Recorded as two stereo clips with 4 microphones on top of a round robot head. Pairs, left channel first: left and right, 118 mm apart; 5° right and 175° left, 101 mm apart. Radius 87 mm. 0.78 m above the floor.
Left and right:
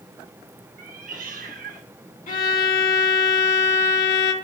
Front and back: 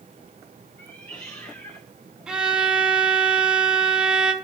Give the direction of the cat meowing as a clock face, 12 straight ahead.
3 o'clock.